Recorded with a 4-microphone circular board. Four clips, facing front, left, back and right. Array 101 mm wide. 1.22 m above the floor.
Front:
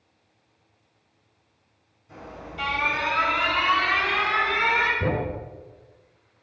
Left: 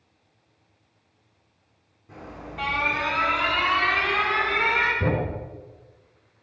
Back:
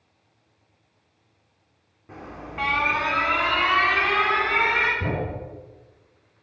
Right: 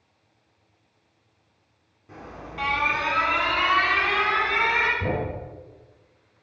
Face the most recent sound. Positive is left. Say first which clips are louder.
# left 2 dB, front 2 dB
turn(degrees=65)